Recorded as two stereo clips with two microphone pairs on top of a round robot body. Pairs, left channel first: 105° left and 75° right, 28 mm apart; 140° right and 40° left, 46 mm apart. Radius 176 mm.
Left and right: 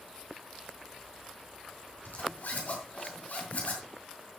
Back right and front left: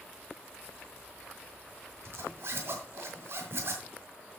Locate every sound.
2.0 s a zipper: 75° left, 2 m